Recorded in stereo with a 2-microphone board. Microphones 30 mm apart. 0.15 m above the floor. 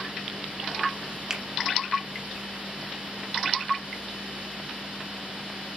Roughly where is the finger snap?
Centre.